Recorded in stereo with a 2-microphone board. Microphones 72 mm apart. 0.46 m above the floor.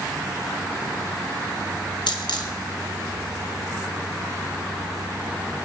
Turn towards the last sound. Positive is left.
turn(degrees=80)